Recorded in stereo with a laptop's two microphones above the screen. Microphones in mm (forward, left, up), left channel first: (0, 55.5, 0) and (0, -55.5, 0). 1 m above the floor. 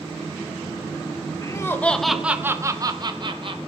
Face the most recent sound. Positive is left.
turn(degrees=-50)  # may be behind; listen again after turning